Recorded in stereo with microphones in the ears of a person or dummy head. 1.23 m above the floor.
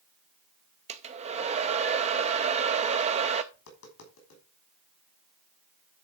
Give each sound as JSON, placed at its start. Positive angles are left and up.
{"t": 0.9, "sound": "a hair dryer", "side_deg": -30, "distance_m": 0.5}
{"t": 3.5, "sound": "tapping", "side_deg": 80, "distance_m": 3.0}